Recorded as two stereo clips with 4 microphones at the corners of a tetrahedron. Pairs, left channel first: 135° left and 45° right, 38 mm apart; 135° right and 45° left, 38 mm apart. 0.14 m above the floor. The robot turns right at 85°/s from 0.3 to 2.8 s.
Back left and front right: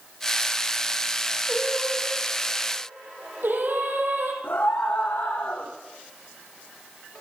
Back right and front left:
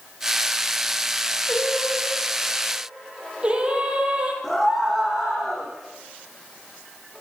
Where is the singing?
130° right, 4 m; by 4.3 s 15° right, 4 m.